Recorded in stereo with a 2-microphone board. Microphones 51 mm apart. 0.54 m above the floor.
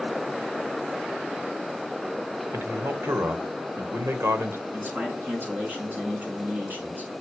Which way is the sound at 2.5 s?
55° right (ahead or behind).